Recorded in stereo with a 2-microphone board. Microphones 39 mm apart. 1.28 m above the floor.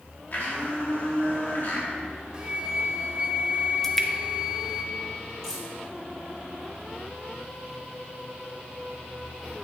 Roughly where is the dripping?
Centre.